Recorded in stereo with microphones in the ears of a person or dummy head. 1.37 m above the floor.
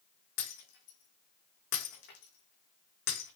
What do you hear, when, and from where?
0.4 s breaking glass: 65° left (ahead or behind), 4.5 m